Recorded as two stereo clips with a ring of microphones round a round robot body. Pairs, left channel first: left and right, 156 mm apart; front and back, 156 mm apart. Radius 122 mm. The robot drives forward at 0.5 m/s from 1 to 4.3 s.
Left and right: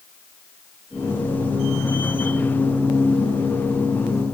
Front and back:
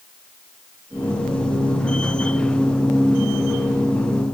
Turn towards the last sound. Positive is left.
No sound to turn to.